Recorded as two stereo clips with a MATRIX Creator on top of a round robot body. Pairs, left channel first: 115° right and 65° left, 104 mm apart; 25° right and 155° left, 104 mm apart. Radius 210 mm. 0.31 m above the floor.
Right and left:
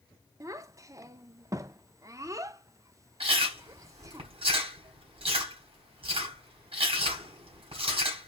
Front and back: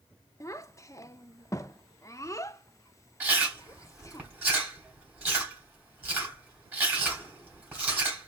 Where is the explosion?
No explosion in this recording.